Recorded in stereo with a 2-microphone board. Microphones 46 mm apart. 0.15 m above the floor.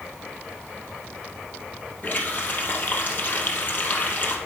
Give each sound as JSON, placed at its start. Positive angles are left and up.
{"t": 2.0, "sound": "a running tap", "side_deg": 35, "distance_m": 2.5}